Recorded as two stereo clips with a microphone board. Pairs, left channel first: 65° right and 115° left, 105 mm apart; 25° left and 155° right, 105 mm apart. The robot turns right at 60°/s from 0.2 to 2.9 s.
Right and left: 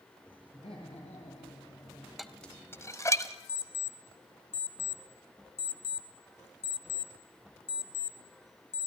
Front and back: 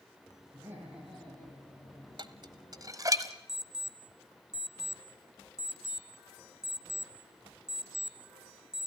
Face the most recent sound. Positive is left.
turn(degrees=-75)